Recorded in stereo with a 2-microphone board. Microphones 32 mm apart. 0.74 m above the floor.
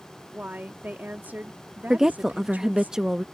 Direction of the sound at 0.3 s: 60° right (ahead or behind).